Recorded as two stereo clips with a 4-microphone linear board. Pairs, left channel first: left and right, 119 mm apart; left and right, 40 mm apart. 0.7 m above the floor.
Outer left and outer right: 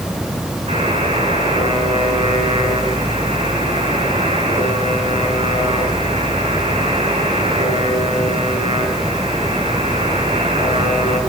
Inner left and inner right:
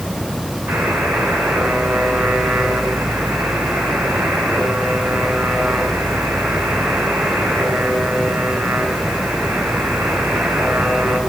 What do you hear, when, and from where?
0.7 s a buzzer: 60° right (ahead or behind), 9.5 m